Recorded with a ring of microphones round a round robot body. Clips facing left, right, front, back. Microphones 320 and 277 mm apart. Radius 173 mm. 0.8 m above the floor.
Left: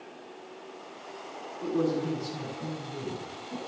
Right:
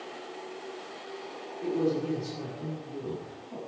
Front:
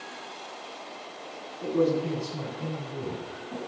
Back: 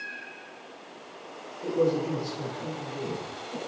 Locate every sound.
1.6 s a man speaking: 20° left, 9 m; by 3.6 s 25° left, 6.5 m